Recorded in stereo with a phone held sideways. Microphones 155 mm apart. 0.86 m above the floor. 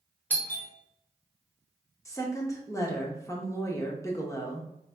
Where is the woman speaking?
20° left (ahead or behind), 1.0 m.